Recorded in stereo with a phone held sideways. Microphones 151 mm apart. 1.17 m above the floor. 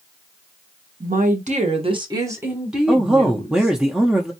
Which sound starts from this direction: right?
A woman speaking, at 1.0 s.